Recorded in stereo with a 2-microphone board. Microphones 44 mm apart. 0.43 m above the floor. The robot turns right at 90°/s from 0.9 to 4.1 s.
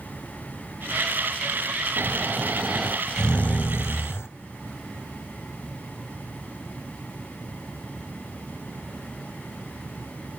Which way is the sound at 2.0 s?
90° right.